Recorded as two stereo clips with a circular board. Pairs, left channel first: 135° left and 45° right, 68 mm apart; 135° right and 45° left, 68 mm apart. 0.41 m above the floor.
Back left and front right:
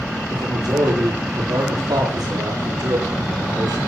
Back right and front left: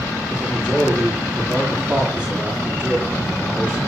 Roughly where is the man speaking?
Ahead right.